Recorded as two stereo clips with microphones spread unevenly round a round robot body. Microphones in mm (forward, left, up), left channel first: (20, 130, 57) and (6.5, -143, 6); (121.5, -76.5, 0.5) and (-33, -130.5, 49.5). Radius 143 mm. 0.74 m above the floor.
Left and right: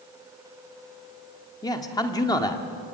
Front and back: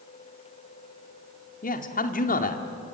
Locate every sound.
1.6 s a man speaking: 5° left, 2 m